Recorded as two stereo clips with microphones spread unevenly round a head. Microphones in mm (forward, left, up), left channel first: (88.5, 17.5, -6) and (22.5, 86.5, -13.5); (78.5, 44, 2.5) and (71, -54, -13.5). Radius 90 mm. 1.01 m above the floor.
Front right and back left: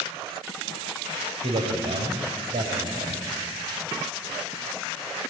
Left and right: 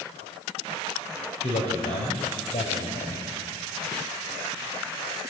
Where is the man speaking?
115° left, 4 m.